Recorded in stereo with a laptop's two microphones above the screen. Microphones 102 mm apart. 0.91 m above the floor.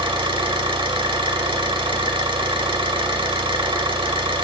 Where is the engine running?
60° right (ahead or behind), 1.1 m.